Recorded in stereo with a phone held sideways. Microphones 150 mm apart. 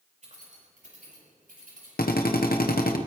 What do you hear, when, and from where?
0.2 s keys jangling: 55° right (ahead or behind), 5 m; by 1.9 s 70° right (ahead or behind), 7 m
2.0 s a drill: 85° left, 0.9 m